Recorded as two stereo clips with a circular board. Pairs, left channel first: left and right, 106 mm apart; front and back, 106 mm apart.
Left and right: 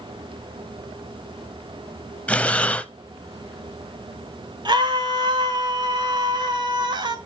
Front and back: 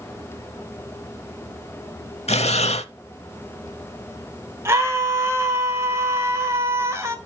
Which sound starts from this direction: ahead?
Breathing, at 2.3 s.